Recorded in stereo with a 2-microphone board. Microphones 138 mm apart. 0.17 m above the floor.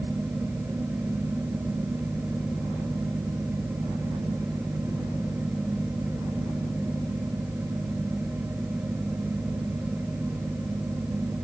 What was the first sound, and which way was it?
Only background noise.